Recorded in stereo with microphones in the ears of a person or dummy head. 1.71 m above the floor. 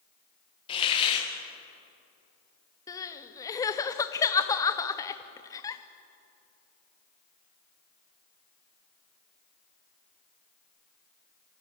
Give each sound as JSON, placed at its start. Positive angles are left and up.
{"t": 0.7, "sound": "a hiss", "side_deg": 25, "distance_m": 2.0}
{"t": 2.9, "sound": "crying", "side_deg": 20, "distance_m": 0.8}